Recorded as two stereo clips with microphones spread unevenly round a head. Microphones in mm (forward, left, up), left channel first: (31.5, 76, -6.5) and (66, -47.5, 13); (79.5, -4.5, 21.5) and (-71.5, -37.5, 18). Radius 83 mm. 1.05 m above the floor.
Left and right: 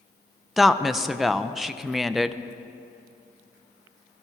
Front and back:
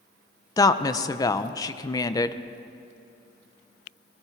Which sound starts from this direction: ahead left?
A woman speaking, at 0.6 s.